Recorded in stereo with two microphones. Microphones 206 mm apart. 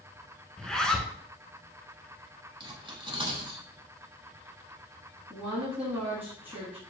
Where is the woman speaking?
10° right (ahead or behind), 1.1 m.